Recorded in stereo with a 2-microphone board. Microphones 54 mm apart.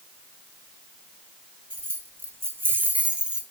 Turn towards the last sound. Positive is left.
turn(degrees=-15)  # may be behind; listen again after turning